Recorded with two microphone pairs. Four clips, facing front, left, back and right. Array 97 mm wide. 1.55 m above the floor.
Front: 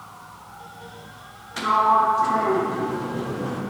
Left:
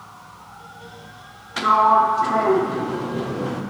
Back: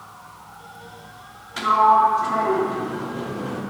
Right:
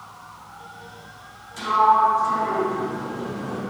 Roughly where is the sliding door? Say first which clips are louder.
Left 2 dB, back 3 dB; left.